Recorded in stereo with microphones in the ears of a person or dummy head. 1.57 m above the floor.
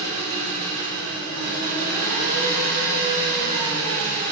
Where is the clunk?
No clunk in this recording.